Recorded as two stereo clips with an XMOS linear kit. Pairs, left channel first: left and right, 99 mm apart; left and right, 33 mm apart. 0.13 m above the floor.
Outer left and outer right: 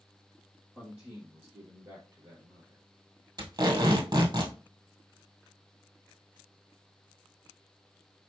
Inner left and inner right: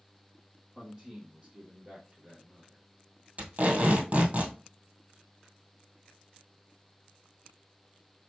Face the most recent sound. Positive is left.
turn(degrees=-40)  # may be behind; listen again after turning